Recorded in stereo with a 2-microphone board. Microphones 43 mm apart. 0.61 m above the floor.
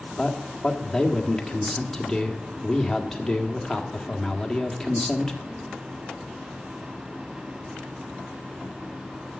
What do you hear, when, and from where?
0.2 s a man speaking: 10° left (ahead or behind), 1.6 m